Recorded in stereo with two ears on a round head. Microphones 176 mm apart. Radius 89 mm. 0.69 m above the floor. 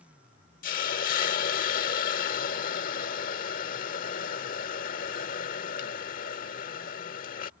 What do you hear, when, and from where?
0.6 s a hiss: 45° left (ahead or behind)